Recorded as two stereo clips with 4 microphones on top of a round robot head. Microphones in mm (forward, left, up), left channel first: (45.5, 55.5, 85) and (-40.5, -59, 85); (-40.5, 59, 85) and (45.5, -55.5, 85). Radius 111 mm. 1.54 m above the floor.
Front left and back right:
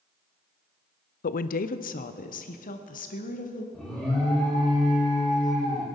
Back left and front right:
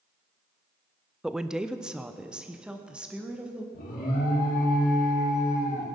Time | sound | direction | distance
1.2 | a woman speaking | 35° left | 0.5 m
3.7 | an alarm | 140° left | 4 m